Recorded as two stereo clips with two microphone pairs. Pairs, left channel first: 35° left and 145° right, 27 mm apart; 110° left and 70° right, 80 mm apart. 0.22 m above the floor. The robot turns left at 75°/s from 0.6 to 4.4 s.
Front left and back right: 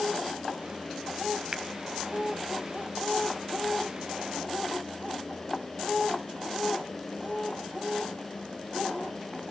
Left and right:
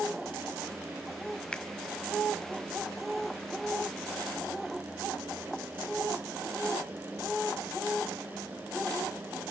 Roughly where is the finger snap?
Behind.